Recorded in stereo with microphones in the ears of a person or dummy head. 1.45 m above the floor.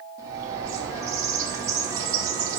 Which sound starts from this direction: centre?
A bird, at 0.2 s.